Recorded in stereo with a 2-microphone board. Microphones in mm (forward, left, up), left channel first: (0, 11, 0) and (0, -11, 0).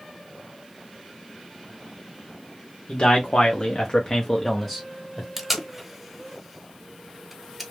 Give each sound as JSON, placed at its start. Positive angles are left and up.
{"t": 2.9, "sound": "a man speaking", "side_deg": 55, "distance_m": 1.1}
{"t": 5.4, "sound": "tape being pulled", "side_deg": -5, "distance_m": 0.8}